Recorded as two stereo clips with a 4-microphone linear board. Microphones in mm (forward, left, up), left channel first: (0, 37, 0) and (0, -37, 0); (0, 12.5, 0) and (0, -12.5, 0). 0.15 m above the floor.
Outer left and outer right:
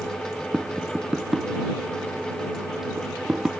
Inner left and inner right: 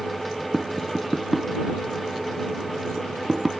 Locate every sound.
0.5 s tapping: 10° right (ahead or behind)